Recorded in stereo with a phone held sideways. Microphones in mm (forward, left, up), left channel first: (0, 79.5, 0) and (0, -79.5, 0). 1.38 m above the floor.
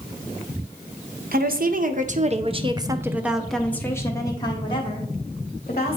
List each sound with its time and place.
1.3 s a woman speaking: 70° right (ahead or behind), 1.0 m; by 6.0 s 45° left (ahead or behind), 1.7 m